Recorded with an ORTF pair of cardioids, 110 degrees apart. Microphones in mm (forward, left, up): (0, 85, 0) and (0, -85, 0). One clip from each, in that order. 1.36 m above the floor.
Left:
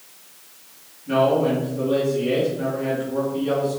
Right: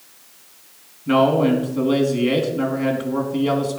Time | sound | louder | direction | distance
1.1 | a man speaking | right 2 dB | 60° right | 3 m